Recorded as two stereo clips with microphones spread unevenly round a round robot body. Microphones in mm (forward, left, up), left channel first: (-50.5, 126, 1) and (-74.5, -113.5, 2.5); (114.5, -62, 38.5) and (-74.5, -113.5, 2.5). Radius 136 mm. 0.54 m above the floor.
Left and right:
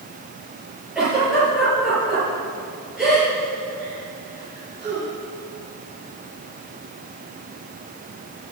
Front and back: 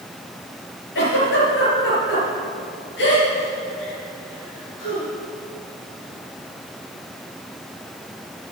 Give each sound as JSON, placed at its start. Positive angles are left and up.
{"t": 0.9, "sound": "a giggle", "azimuth_deg": -10, "distance_m": 5.0}